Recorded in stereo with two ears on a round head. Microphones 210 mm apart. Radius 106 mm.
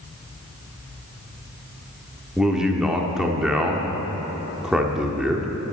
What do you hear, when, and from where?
2.4 s a man speaking: 5° right (ahead or behind), 1.1 m